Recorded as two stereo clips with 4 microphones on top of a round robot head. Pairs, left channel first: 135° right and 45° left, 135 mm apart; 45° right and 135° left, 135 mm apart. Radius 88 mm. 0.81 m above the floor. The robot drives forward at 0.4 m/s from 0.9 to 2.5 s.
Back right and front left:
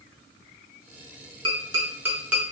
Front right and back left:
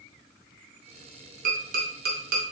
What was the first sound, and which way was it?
Tapping, 105° left.